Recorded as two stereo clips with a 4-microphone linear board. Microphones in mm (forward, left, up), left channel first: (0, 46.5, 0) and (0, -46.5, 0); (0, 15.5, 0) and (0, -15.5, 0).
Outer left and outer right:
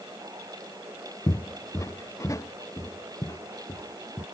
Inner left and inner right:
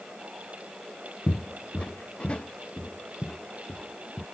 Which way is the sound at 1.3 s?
35° left (ahead or behind).